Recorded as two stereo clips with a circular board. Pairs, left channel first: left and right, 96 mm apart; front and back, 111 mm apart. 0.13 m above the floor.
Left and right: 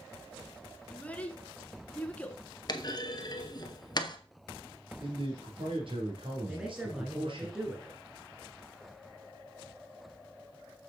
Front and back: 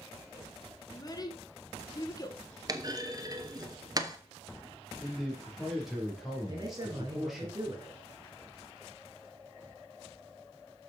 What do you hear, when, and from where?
0.9 s a child speaking: 25° left, 1.2 m
2.7 s a clunk: 130° left, 0.9 m
5.0 s a man speaking: 90° right, 3 m
6.5 s a man speaking: 165° right, 1.5 m